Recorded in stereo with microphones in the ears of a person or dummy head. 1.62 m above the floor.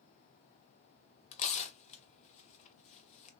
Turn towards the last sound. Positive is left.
turn(degrees=40)  # may be behind; listen again after turning